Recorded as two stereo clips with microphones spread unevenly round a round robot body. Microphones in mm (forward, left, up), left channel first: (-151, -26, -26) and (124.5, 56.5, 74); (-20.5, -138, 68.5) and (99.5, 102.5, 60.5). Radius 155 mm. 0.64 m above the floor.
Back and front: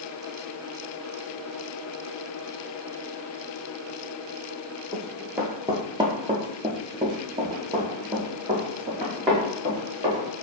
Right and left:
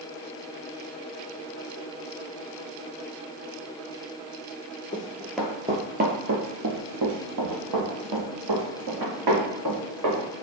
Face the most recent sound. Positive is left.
turn(degrees=85)